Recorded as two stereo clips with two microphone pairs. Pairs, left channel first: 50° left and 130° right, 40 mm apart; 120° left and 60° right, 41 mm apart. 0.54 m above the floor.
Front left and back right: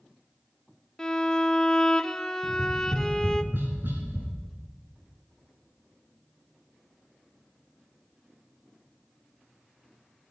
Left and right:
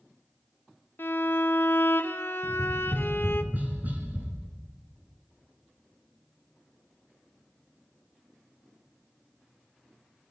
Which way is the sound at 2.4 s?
105° right.